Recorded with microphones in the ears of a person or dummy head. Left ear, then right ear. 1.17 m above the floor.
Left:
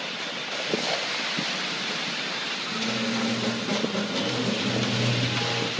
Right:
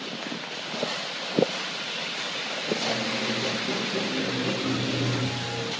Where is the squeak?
65° left (ahead or behind), 3.5 m.